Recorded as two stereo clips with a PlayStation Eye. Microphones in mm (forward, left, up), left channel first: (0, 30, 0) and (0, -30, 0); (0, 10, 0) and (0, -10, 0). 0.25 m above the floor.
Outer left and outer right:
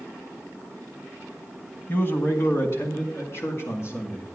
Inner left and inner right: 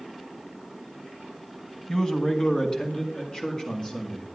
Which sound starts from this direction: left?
A man speaking, at 1.9 s.